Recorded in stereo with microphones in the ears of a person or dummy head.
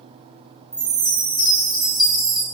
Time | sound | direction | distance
0.7 | a chime | 10° left (ahead or behind) | 0.8 m